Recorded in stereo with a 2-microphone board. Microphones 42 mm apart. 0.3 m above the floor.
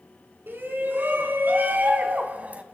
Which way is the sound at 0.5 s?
60° right (ahead or behind).